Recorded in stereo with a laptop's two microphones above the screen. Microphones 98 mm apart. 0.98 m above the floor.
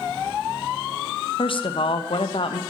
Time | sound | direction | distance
1.4 | a woman speaking | 60° left (ahead or behind) | 0.5 m